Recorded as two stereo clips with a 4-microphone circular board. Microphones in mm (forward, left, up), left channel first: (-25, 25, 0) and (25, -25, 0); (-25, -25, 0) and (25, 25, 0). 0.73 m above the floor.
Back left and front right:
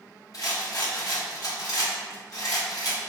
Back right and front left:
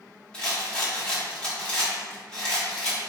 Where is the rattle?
150° left, 1.3 m.